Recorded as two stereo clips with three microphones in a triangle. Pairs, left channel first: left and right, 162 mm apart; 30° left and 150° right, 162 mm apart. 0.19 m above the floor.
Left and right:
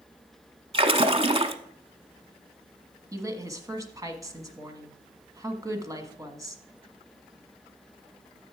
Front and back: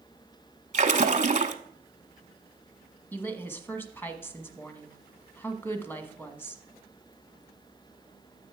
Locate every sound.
0.7 s a splash: 135° right, 0.8 m
3.1 s a woman speaking: 40° right, 1.3 m